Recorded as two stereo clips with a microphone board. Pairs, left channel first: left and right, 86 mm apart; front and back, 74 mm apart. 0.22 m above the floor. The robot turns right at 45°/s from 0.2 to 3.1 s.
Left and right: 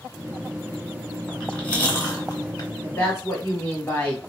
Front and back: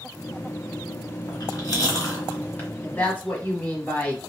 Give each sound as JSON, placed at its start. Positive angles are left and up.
{"t": 1.3, "sound": "chewing", "azimuth_deg": 0, "distance_m": 1.9}
{"t": 2.8, "sound": "a woman speaking", "azimuth_deg": 40, "distance_m": 1.4}